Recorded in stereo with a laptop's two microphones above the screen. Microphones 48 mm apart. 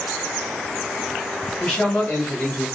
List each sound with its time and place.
1.6 s a man speaking: 45° left (ahead or behind), 2.0 m; by 2.6 s 55° left (ahead or behind), 1.2 m